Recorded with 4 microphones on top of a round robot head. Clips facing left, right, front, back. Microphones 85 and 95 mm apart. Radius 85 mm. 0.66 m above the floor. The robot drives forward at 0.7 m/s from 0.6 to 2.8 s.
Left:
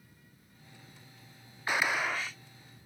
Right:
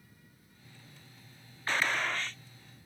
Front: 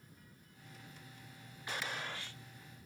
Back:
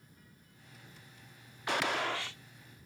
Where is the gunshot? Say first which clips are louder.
Left 1 dB, back 10 dB; 170° left; by 2.4 s 175° left.